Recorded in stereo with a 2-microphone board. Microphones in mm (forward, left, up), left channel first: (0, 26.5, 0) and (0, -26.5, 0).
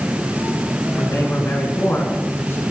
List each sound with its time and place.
1.0 s a man speaking: 45° left (ahead or behind), 3 m